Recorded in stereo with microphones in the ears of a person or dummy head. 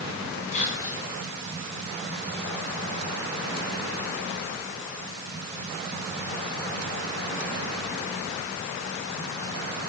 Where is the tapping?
I don't hear tapping.